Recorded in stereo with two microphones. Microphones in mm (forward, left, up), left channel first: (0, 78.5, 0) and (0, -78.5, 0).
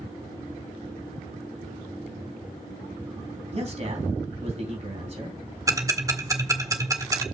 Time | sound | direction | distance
3.5 | a man speaking | 40° right (ahead or behind) | 3.5 m
5.7 | ticking | 20° right (ahead or behind) | 1.7 m